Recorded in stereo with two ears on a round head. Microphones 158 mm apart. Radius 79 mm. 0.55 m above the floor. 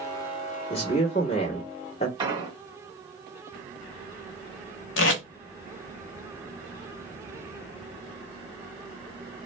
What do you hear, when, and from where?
0.7 s a man speaking: 35° left (ahead or behind), 1.4 m
2.2 s an explosion: 25° right (ahead or behind), 1.6 m
5.0 s tape being pulled: 80° left, 0.9 m